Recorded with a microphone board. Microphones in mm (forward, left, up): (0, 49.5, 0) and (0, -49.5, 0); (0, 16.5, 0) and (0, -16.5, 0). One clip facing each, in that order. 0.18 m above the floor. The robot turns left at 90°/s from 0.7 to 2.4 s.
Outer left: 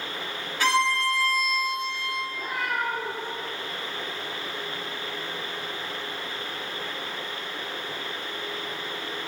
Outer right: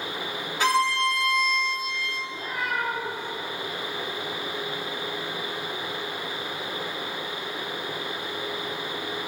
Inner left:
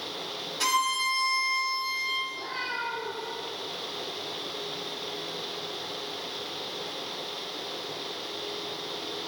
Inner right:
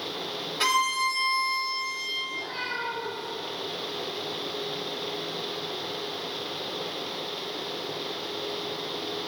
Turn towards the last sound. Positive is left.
turn(degrees=-15)  # may be behind; listen again after turning